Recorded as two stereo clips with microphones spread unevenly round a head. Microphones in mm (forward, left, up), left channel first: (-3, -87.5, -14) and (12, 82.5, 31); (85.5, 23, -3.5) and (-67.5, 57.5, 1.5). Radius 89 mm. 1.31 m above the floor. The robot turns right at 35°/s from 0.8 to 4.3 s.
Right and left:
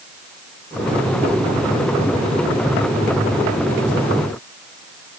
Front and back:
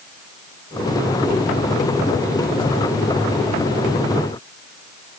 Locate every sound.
Only background noise.